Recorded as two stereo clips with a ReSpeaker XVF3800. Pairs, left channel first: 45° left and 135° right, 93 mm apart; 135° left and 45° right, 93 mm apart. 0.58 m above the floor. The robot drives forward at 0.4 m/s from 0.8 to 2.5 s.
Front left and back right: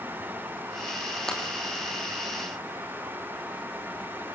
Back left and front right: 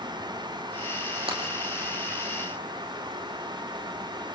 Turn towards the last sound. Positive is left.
turn(degrees=-40)